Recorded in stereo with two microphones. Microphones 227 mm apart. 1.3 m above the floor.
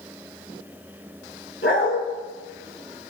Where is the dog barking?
70° left (ahead or behind), 5 m.